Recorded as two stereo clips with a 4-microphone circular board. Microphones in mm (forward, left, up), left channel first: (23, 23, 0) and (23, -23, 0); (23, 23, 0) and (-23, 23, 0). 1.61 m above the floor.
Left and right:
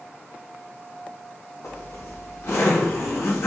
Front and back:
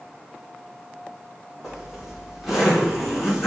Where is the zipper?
95° left, 4 m.